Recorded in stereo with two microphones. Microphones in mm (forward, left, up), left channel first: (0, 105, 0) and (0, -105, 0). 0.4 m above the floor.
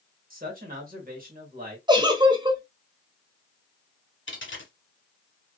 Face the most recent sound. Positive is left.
turn(degrees=65)  # may be behind; listen again after turning